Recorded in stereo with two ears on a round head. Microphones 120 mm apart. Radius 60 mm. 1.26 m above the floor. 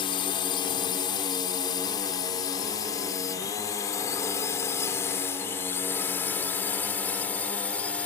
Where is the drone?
40° left (ahead or behind); by 8.1 s 10° left (ahead or behind).